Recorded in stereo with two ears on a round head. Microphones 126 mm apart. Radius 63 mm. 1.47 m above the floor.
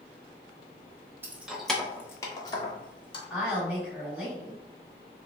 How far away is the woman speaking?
About 1.8 m.